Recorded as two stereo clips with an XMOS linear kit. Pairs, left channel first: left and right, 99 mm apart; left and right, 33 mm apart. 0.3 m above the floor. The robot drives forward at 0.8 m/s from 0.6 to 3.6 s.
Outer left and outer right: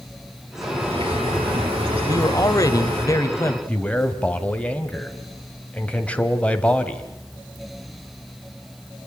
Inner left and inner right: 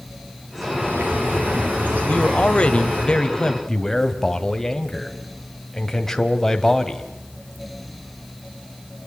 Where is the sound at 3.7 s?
15° left (ahead or behind), 1.6 m.